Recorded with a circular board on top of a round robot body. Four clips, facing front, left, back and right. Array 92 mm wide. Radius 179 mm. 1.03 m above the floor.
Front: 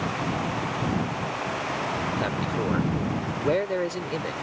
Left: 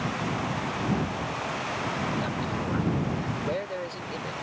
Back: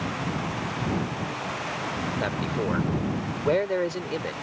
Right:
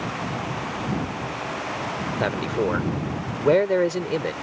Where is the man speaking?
95° right.